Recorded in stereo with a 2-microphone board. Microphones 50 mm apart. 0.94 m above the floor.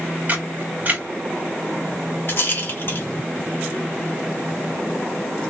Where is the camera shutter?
35° right (ahead or behind), 1.9 m.